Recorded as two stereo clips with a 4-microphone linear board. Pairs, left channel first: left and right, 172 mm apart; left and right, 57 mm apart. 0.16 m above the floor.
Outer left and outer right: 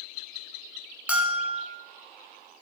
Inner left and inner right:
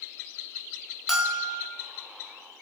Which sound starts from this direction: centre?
A bell, at 1.1 s.